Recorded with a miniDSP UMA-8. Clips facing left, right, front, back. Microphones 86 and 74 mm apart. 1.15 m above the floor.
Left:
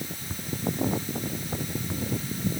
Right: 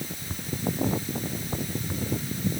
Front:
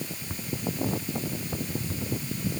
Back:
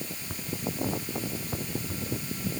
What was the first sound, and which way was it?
Only background noise.